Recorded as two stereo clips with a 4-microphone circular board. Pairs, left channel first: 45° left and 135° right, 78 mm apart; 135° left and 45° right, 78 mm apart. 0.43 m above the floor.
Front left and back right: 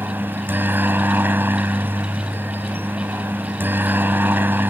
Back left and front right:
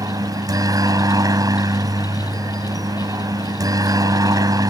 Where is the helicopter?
75° right.